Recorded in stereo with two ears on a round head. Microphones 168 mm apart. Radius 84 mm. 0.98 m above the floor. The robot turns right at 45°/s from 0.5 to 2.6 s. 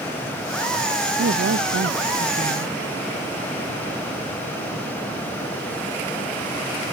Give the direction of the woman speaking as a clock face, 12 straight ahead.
3 o'clock.